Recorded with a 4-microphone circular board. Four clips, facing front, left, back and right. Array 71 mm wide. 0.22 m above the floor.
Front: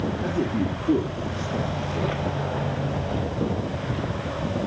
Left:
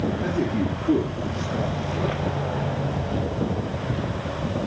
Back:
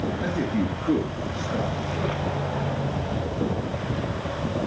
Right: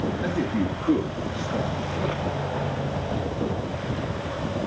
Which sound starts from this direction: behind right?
A man speaking, at 0.2 s.